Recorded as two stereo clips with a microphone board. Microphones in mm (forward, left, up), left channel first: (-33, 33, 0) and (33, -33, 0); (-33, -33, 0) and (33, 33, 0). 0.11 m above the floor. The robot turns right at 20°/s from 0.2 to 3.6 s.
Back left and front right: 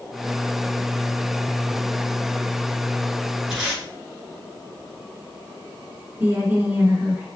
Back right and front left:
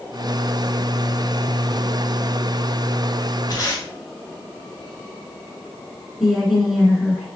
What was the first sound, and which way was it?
Tape being pulled, 130° right.